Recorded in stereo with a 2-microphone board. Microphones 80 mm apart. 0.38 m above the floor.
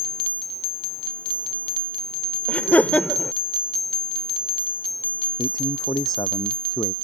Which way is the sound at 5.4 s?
65° left (ahead or behind).